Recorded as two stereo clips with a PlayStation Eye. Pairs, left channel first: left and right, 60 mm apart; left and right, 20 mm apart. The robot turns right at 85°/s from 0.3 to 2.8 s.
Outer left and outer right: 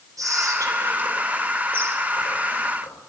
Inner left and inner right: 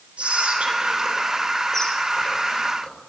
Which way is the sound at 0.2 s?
75° right (ahead or behind).